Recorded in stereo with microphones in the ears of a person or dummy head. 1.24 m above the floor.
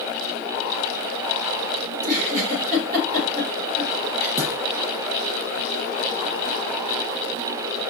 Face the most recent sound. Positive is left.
turn(degrees=-15)  # may be behind; listen again after turning